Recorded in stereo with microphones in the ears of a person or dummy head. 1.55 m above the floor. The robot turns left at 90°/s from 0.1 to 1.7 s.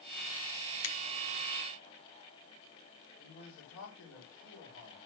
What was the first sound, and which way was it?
A finger snap, 80° left.